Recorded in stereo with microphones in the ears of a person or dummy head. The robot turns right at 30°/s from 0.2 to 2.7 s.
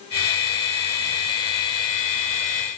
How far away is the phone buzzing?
I don't hear a phone buzzing.